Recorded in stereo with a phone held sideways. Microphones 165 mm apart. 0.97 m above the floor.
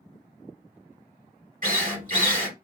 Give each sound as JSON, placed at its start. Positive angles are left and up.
{"t": 1.6, "sound": "a drill", "side_deg": -55, "distance_m": 1.5}